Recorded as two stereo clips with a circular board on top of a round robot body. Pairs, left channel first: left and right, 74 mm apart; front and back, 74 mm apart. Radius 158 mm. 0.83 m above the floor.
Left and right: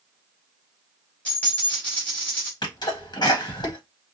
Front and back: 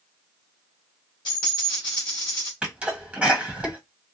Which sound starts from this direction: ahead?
A dropped coin, at 1.2 s.